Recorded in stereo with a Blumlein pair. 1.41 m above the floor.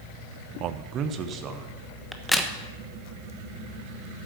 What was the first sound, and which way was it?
A man speaking, 40° right.